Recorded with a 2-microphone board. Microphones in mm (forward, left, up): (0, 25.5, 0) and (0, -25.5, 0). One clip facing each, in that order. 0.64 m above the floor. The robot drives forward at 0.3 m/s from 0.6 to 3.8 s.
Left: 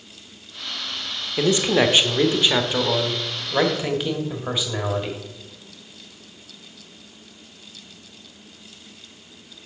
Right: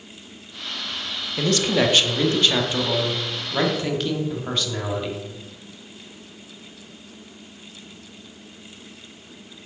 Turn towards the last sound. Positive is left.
turn(degrees=10)  # may be behind; listen again after turning